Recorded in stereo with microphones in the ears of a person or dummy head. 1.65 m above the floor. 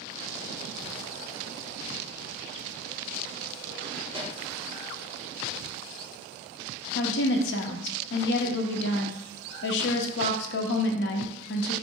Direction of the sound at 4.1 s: 30° right (ahead or behind).